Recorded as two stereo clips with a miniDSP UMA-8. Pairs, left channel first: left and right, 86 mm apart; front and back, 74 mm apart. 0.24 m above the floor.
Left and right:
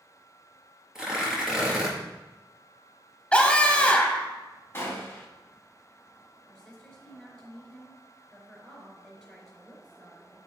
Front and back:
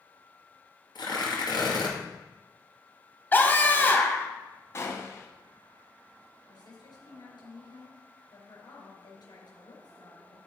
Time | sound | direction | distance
0.9 | tearing paper | 5° right | 2.5 m
3.3 | a scream | 25° left | 1.3 m
4.7 | a gunshot | 35° left | 1.6 m
6.5 | a woman speaking | straight ahead | 3.5 m